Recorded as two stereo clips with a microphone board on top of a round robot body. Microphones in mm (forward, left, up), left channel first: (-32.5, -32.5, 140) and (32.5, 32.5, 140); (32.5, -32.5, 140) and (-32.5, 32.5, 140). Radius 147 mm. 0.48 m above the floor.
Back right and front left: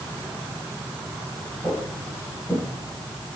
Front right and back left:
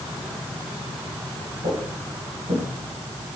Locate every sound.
1.6 s footsteps: 145° left, 9 m; by 2.6 s 150° left, 9 m